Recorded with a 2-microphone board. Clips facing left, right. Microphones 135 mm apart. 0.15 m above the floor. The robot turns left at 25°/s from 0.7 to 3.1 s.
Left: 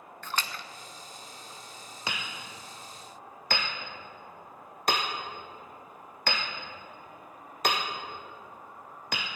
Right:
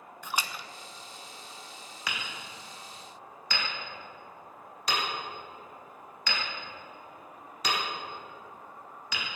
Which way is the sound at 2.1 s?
30° left (ahead or behind).